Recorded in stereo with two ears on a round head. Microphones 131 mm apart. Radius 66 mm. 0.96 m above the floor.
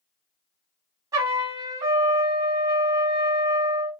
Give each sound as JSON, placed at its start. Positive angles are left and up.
{"t": 1.1, "sound": "a trumpet", "side_deg": -25, "distance_m": 1.7}